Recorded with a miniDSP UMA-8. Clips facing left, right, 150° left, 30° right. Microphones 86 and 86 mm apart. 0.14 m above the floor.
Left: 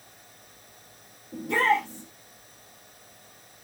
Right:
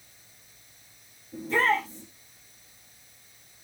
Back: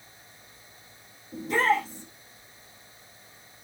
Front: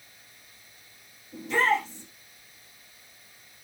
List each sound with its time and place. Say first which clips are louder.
1.3 s a shout: left 1 dB, back 1 dB; 100° left, 5.5 m